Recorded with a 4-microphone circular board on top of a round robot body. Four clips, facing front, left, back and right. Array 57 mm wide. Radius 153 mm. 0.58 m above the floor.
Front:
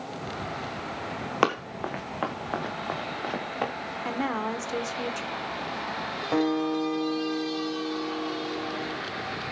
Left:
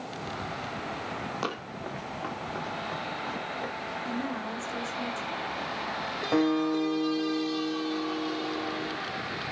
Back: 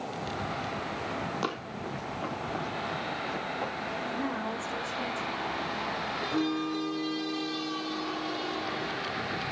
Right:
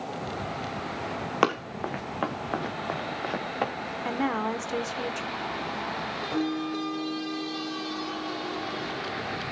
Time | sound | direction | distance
1.4 | running footsteps | 45° right | 3 m
4.0 | a woman speaking | 55° right | 2.5 m
6.3 | a guitar | 45° left | 4 m